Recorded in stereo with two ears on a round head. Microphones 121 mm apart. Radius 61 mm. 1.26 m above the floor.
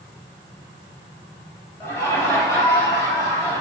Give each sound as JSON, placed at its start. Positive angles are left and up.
{"t": 1.8, "sound": "laughter", "side_deg": 20, "distance_m": 3.5}